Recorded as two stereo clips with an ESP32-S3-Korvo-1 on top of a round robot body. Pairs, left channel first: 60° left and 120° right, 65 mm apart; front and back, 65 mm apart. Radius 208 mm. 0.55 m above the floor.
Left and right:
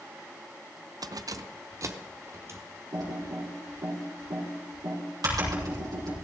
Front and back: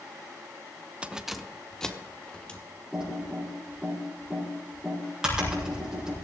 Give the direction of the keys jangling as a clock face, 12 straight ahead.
4 o'clock.